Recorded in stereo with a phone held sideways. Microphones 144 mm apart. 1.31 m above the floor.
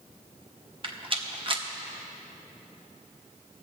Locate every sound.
0.8 s a rattle: 40° right (ahead or behind), 1.0 m